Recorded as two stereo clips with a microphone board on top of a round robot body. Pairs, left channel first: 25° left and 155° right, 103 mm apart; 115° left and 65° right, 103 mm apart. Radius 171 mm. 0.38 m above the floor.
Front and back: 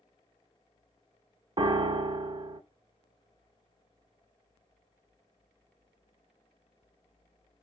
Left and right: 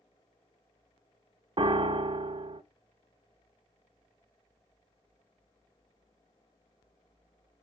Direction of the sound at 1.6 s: 115° right.